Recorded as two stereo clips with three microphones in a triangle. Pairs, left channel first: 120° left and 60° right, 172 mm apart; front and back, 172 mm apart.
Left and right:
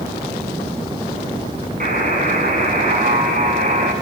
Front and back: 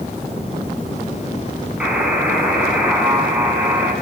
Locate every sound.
1.8 s a buzzer: 95° right, 7.5 m